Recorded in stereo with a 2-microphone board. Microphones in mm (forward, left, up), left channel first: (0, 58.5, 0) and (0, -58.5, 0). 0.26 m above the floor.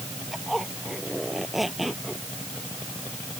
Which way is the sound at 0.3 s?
Centre (ahead or behind).